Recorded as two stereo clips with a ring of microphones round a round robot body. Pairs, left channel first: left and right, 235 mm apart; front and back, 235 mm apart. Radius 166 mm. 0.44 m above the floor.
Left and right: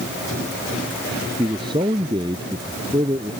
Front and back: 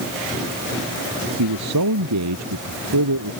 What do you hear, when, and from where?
1.4 s a man speaking: 170° right